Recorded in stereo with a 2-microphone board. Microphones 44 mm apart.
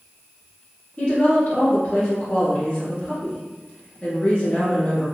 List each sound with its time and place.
1.0 s a woman speaking: 25° left (ahead or behind), 1.4 m